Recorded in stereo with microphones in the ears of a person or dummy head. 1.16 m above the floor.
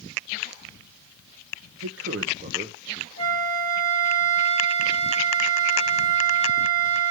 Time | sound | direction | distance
1.8 | a man speaking | 65° right (ahead or behind) | 0.7 m
3.2 | a flute | 80° right | 1.1 m